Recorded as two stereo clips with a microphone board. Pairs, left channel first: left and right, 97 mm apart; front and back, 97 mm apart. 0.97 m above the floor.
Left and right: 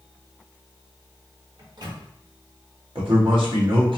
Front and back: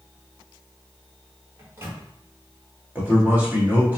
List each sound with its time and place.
1.6 s a microwave: 120° right, 1.1 m
3.0 s a man speaking: 110° right, 1.4 m